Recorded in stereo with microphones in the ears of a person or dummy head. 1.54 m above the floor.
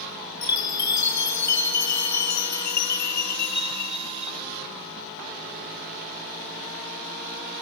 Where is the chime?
60° left (ahead or behind), 1.5 m.